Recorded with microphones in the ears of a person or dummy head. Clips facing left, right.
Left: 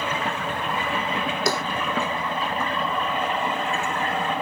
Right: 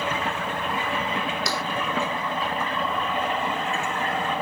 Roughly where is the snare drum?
Left.